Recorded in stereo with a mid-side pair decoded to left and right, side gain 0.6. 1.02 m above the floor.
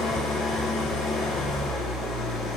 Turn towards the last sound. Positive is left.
turn(degrees=45)